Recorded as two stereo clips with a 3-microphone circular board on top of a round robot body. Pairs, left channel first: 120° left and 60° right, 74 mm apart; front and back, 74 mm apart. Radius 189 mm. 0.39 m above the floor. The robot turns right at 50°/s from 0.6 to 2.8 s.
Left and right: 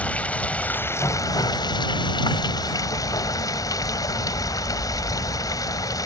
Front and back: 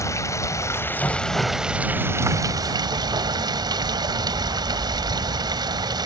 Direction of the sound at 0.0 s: 45° left.